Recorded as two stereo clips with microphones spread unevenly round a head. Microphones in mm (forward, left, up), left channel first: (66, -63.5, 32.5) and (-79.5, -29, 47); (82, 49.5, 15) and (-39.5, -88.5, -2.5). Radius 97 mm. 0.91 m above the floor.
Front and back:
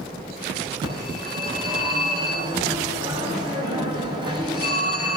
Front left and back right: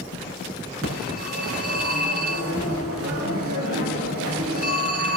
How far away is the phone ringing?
About 6 m.